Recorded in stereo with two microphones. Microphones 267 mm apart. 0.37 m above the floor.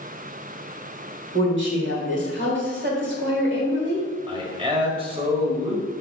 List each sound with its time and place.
1.3 s a woman speaking: 45° right (ahead or behind), 1.8 m
4.3 s a man speaking: 20° right (ahead or behind), 1.5 m